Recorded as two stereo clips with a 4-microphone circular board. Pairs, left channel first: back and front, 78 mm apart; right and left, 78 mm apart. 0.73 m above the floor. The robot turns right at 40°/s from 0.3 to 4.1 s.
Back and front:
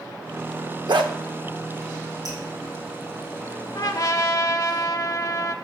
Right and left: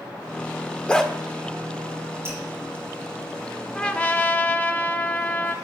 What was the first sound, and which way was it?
A dog barking, 10° right.